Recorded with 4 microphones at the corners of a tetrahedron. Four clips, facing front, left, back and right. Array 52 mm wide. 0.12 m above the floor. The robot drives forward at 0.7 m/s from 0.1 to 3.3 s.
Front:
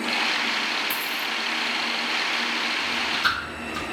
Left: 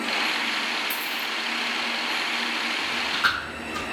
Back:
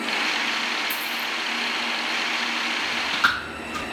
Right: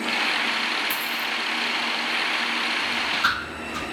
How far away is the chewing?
About 4 m.